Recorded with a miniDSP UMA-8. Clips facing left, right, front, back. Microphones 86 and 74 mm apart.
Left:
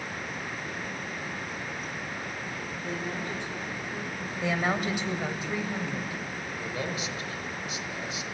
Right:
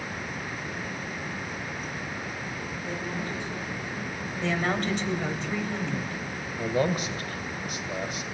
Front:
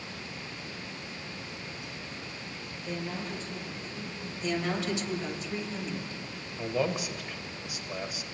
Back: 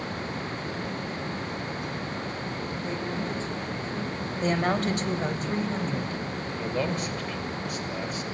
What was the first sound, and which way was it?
A woman speaking, 125° left.